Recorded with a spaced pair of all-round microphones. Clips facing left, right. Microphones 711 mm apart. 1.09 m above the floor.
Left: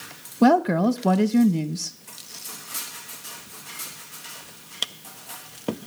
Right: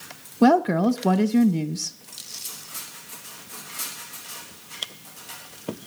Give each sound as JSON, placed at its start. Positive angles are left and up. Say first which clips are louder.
{"t": 0.4, "sound": "a woman speaking", "louder": "even", "side_deg": 0, "distance_m": 0.9}